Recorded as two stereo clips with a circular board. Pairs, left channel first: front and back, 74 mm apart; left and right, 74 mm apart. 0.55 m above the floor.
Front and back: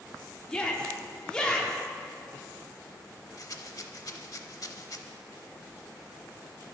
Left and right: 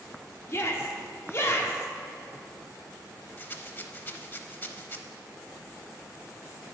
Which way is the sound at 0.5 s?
70° left.